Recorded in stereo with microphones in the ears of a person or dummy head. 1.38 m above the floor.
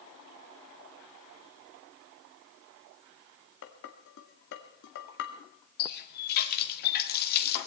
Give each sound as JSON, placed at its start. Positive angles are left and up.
{"t": 3.6, "sound": "dishes clattering", "side_deg": 60, "distance_m": 1.8}
{"t": 5.8, "sound": "a running tap", "side_deg": 55, "distance_m": 1.6}